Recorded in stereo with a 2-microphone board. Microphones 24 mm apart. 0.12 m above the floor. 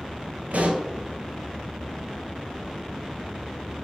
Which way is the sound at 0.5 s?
70° right (ahead or behind).